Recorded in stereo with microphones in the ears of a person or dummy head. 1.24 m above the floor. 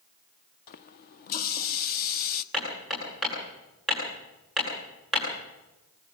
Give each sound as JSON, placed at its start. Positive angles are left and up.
{"t": 0.7, "sound": "a running tap", "side_deg": 50, "distance_m": 0.9}
{"t": 2.5, "sound": "hammering", "side_deg": 0, "distance_m": 10.0}